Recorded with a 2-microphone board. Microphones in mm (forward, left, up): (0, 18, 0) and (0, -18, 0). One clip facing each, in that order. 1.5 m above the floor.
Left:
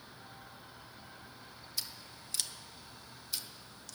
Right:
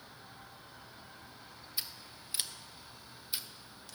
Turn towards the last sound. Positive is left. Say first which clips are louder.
# even
turn(degrees=-20)  # may be behind; listen again after turning